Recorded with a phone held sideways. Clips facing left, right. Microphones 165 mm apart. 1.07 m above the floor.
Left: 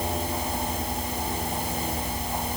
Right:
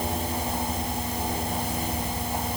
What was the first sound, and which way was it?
Only background noise.